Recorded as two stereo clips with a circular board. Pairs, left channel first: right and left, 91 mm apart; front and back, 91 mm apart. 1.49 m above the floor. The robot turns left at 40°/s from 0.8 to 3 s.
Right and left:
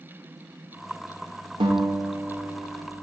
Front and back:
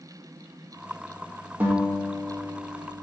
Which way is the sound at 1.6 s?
110° left.